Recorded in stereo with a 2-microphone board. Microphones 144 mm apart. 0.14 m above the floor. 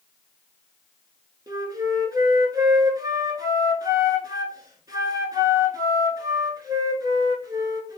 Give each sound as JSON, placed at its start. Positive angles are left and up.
{"t": 1.5, "sound": "a flute", "side_deg": -25, "distance_m": 0.8}